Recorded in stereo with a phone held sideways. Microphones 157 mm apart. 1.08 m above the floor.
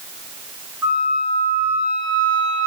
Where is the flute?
15° right (ahead or behind), 2 m.